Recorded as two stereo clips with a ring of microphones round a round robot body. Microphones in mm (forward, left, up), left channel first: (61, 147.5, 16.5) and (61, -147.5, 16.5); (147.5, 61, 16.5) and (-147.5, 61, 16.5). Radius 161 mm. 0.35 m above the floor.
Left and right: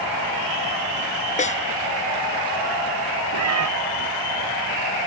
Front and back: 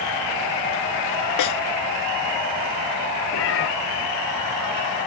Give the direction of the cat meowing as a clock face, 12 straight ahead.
2 o'clock.